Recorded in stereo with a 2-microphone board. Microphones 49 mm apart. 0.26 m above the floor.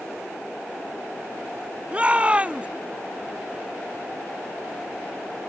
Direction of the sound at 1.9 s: 25° right (ahead or behind).